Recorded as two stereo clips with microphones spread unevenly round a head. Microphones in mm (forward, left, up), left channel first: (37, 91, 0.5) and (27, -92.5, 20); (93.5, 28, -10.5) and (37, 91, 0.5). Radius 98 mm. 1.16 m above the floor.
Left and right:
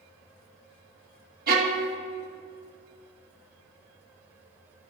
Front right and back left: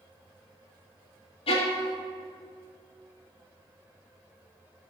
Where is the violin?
55° right, 1.3 m.